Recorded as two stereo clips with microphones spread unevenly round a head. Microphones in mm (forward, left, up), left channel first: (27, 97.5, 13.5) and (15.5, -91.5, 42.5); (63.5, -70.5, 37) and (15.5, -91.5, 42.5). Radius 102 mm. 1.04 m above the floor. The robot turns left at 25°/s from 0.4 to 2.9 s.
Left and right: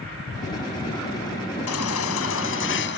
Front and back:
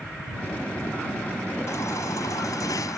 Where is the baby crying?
90° left; by 3.0 s 55° left.